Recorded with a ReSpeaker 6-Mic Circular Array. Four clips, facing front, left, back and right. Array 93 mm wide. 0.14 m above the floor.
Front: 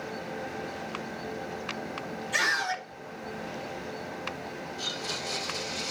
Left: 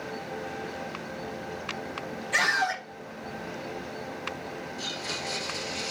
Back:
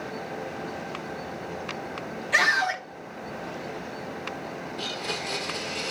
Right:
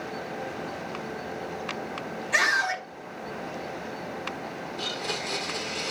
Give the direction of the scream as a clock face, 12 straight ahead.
6 o'clock.